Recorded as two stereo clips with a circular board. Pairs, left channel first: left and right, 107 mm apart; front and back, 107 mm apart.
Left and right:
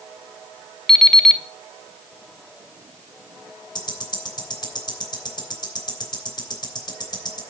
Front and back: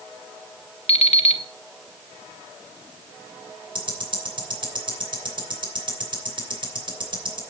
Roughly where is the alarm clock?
Ahead.